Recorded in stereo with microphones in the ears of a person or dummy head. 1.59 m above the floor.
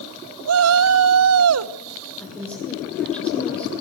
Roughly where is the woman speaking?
Centre.